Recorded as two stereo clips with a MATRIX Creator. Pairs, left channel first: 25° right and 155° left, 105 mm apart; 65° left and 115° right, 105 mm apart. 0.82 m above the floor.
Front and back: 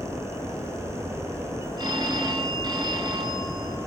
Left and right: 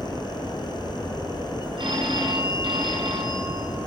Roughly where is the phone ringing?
Behind right.